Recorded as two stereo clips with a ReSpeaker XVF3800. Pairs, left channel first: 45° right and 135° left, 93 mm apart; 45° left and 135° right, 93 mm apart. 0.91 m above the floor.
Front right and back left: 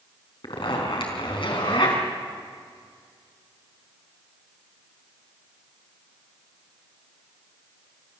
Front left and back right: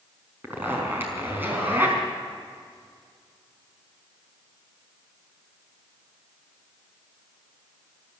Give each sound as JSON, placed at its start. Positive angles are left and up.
{"t": 0.4, "sound": "a zipper", "azimuth_deg": -65, "distance_m": 4.5}